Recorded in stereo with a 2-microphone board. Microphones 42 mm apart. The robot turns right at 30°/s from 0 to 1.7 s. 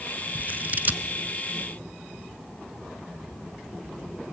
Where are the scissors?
40° right (ahead or behind), 0.6 m.